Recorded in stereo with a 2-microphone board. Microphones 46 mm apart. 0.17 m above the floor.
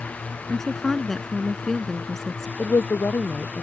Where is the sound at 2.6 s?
75° left (ahead or behind).